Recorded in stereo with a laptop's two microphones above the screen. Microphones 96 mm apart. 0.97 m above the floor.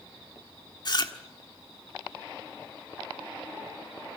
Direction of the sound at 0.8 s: 45° left (ahead or behind).